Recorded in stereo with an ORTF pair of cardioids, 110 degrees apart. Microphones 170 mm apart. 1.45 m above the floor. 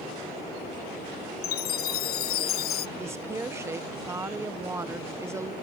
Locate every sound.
1.4 s a chime: 65° left
3.0 s a woman speaking: 15° right